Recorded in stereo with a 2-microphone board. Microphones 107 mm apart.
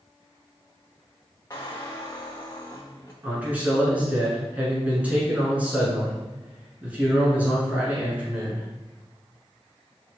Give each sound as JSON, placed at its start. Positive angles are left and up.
{"t": 1.5, "sound": "a squeak", "side_deg": 30, "distance_m": 0.7}
{"t": 3.2, "sound": "a man speaking", "side_deg": -15, "distance_m": 1.1}